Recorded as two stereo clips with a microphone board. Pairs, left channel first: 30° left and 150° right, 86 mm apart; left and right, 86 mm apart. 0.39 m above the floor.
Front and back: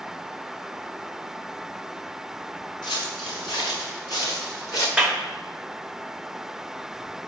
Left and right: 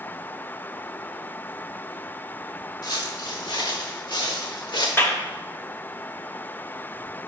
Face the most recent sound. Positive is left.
turn(degrees=130)